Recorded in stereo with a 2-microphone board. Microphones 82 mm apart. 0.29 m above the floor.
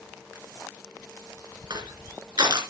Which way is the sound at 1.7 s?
65° right (ahead or behind).